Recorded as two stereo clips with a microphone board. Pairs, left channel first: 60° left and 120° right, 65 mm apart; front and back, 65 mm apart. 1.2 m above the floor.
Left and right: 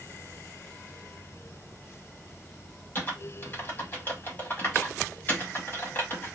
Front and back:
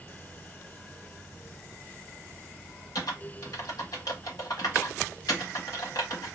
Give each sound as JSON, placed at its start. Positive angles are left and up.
{"t": 3.0, "sound": "typing on a keyboard", "azimuth_deg": 5, "distance_m": 1.4}